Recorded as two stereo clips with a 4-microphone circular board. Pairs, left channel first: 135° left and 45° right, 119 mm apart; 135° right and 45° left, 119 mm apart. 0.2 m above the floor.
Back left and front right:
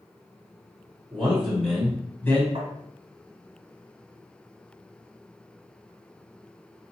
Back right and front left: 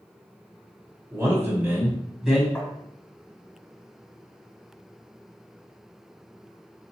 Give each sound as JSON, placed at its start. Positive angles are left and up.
{"t": 1.1, "sound": "a man speaking", "azimuth_deg": 15, "distance_m": 1.4}
{"t": 2.5, "sound": "tapping", "azimuth_deg": -55, "distance_m": 1.4}